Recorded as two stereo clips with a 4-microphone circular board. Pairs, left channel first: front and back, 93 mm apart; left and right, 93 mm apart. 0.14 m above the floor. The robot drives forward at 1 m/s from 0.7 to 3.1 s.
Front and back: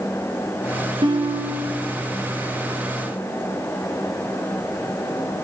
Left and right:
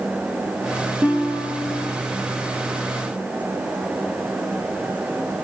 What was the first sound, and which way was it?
A guitar, 160° right.